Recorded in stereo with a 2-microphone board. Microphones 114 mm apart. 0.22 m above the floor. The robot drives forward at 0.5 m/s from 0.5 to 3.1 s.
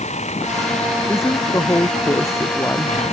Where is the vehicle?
85° left.